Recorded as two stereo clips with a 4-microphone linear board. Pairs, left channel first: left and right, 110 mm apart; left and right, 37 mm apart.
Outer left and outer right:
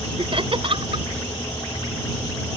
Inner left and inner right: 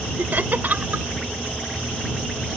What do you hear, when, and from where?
0.2 s laughter: 55° right (ahead or behind)